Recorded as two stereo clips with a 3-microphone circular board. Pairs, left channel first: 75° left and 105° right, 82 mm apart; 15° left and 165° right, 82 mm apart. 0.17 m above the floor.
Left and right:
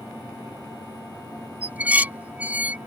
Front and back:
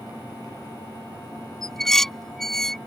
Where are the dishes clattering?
65° right.